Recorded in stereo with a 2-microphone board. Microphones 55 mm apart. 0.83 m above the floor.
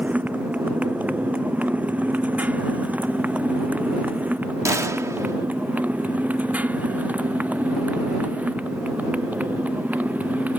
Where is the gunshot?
70° right (ahead or behind).